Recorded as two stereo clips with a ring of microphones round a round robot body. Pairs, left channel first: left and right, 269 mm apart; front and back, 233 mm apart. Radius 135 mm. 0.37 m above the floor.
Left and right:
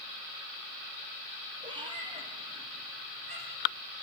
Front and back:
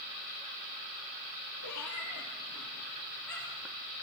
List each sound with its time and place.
1.6 s a cat meowing: 15° right, 3.5 m; by 3.7 s 25° right, 5 m